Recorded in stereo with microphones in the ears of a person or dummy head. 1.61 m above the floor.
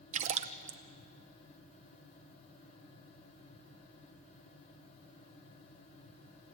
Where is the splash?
45° right (ahead or behind), 0.8 m.